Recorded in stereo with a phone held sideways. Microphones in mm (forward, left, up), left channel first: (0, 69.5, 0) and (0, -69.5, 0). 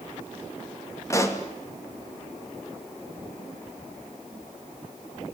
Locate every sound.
1.1 s a pop: 20° left (ahead or behind), 2.5 m